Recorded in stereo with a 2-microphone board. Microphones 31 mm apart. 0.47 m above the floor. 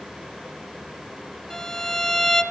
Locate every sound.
1.5 s a violin: 15° left (ahead or behind), 2.5 m